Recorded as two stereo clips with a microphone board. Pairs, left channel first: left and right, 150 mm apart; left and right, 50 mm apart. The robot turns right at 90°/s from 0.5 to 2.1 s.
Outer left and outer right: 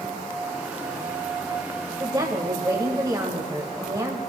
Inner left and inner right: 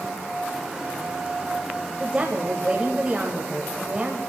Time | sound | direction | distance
2.0 | a woman speaking | 20° right (ahead or behind) | 1.1 m